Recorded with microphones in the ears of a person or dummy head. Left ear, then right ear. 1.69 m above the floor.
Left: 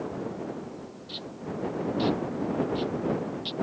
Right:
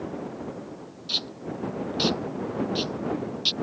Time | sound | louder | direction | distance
1.1 | tape being pulled | right 9 dB | 70° right (ahead or behind) | ?